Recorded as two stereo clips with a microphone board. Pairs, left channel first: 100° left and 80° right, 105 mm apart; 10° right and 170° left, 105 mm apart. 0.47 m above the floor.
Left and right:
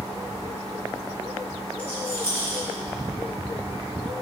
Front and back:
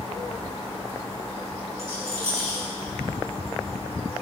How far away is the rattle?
About 3 m.